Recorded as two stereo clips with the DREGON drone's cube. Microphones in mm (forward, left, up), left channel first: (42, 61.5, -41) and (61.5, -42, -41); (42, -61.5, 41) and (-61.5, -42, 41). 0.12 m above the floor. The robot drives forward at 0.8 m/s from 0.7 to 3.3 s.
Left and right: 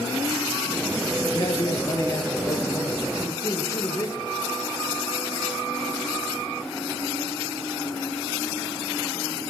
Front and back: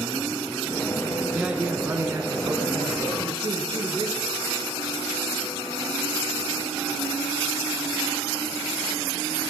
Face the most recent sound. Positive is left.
turn(degrees=150)